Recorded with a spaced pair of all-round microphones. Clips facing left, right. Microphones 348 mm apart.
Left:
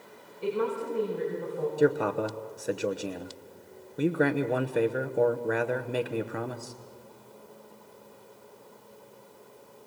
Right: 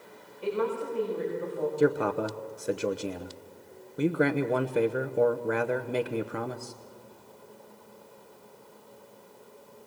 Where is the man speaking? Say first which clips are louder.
Left 1 dB; 5° right (ahead or behind), 0.9 m.